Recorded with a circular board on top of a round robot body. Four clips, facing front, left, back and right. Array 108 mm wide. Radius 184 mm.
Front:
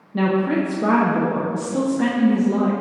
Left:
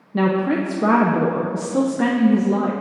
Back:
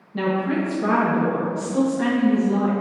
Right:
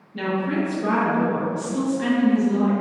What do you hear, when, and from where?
0.1 s a woman speaking: 80° left, 1.1 m